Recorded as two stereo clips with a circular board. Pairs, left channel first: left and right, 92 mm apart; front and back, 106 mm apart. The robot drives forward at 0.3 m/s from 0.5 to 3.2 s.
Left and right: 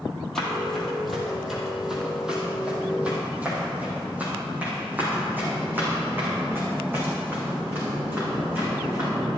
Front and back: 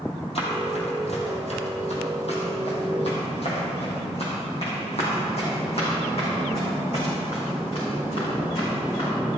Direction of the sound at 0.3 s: 5° left.